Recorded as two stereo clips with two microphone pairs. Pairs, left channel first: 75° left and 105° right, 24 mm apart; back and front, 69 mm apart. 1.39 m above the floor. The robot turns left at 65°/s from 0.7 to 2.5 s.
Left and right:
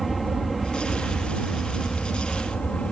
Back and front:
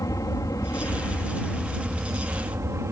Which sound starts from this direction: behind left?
An aircraft, at 0.0 s.